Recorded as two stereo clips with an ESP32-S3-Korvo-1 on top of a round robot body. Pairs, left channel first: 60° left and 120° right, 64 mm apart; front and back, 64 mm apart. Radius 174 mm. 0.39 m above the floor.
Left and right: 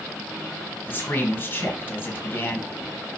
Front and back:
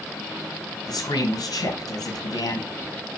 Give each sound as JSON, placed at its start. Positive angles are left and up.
{"t": 0.9, "sound": "a man speaking", "azimuth_deg": 0, "distance_m": 3.5}